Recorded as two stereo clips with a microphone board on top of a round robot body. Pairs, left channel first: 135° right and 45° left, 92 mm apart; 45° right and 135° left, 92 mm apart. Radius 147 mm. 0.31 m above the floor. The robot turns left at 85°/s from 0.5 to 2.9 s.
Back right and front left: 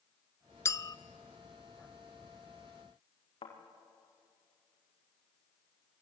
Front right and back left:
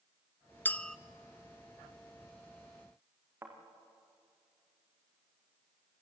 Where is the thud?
160° right, 5 m.